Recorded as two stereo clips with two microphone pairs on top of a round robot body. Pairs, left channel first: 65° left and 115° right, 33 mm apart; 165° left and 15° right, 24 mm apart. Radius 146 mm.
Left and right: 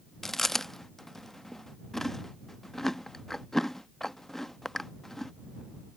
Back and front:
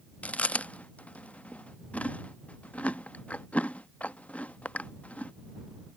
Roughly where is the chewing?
Behind left.